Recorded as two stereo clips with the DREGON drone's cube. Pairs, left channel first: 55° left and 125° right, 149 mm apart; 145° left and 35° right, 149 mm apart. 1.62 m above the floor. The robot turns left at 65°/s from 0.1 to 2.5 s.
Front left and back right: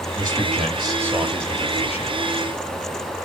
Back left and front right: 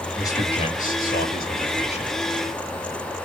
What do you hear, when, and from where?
0.2 s a man speaking: 140° right, 1.3 m; by 2.2 s 90° left, 1.3 m